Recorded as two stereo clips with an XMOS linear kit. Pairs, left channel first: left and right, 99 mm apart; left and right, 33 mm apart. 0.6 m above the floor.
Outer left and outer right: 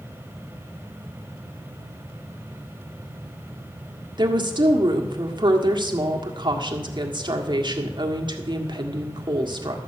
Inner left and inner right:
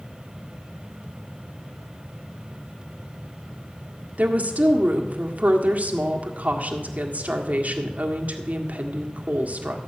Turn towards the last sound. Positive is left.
turn(degrees=-50)  # may be behind; listen again after turning